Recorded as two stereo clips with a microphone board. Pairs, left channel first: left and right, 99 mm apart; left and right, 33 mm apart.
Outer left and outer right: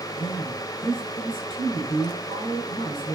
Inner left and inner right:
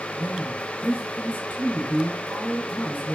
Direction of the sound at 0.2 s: 55° left (ahead or behind).